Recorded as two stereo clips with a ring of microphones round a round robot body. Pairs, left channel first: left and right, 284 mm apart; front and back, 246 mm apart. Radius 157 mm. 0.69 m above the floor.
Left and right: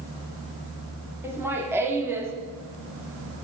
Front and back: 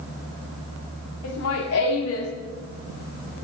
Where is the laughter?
10° right, 1.7 m.